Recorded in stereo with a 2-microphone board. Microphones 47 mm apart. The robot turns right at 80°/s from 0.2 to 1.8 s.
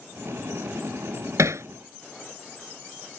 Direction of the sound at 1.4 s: 85° right.